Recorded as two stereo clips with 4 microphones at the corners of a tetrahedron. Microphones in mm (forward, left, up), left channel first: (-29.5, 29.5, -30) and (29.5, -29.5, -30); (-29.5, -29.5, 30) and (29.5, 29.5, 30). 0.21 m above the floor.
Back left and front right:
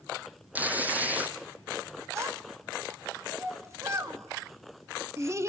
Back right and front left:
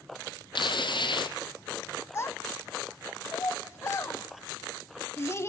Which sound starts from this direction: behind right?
Tearing paper, at 0.6 s.